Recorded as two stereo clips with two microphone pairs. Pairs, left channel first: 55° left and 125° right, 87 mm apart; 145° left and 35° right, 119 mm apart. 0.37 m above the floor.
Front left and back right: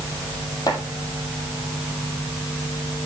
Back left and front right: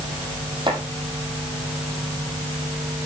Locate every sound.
0.7 s chopping: 15° left, 3 m